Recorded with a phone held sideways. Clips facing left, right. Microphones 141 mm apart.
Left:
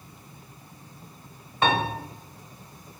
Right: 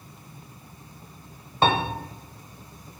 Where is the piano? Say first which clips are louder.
Right 1 dB; 30° right (ahead or behind), 1.3 m.